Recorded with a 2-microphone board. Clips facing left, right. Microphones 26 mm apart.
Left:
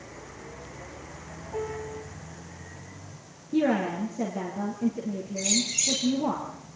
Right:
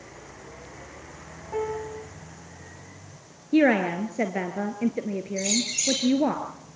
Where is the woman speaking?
75° right (ahead or behind), 3 m.